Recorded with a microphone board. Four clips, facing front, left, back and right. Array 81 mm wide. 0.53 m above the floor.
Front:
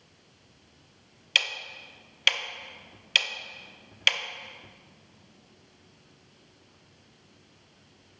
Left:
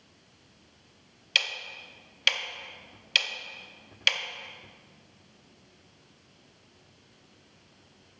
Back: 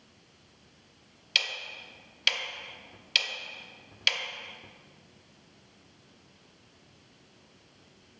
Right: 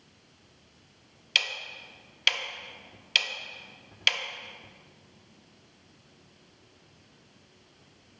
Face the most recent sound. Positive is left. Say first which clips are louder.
# even, front 3 dB
turn(degrees=-5)